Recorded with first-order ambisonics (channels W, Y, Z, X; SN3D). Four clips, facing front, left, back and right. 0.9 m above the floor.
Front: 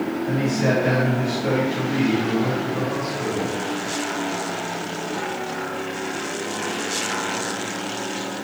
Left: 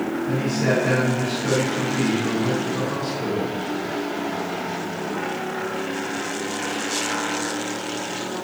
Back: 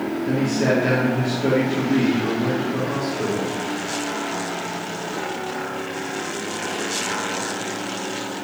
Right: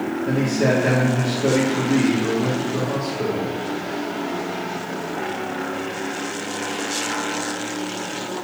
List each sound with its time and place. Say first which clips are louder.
0.2 s a man speaking: right 4 dB, back 2 dB; 125° right, 1.8 m